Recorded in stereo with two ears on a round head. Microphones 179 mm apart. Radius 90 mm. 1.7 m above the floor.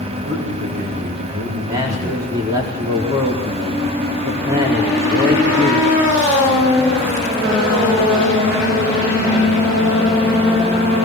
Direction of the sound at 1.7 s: 20° right (ahead or behind).